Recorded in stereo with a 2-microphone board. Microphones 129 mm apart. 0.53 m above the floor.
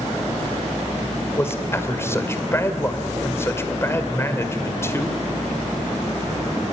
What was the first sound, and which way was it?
A man speaking, 20° left (ahead or behind).